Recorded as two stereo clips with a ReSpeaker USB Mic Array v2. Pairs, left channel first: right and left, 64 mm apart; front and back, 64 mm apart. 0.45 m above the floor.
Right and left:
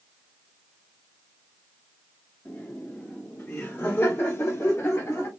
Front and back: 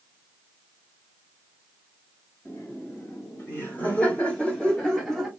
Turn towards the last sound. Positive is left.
turn(degrees=-90)